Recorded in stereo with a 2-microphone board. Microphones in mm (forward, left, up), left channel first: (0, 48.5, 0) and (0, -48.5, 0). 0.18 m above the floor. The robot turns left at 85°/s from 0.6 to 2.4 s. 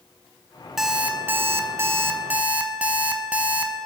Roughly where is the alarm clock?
Centre.